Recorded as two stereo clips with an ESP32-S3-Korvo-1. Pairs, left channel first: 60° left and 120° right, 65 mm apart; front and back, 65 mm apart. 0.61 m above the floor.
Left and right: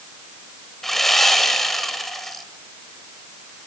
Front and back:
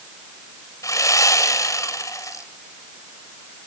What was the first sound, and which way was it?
Sawing, 25° right.